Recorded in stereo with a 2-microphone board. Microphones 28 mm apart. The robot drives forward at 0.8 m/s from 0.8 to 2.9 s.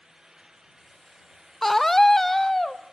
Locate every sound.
1.6 s a scream: 10° left (ahead or behind), 0.6 m